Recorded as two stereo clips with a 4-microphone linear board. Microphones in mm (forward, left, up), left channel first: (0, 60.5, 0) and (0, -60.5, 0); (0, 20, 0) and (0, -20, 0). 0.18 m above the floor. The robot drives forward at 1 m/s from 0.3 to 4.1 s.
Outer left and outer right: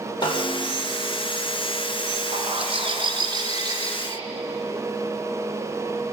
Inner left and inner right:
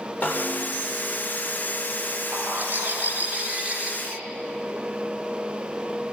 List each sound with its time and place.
0.2 s a snare drum: 35° left (ahead or behind), 6.5 m
2.3 s a bird: 55° right (ahead or behind), 1.4 m; by 4.2 s 30° right (ahead or behind), 2.5 m